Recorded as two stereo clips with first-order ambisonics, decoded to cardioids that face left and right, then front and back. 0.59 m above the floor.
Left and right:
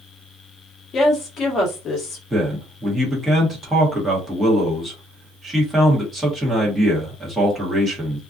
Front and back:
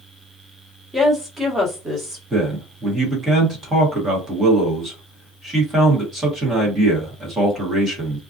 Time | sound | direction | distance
0.9 | a woman speaking | 110° left | 1.1 m
2.3 | a man speaking | 160° right | 1.2 m